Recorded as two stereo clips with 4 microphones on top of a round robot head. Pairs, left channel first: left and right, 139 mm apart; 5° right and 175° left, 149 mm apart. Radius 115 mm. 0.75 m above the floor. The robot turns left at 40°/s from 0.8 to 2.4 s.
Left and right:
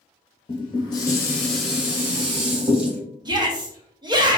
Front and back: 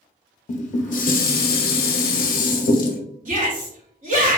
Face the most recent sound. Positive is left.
turn(degrees=-150)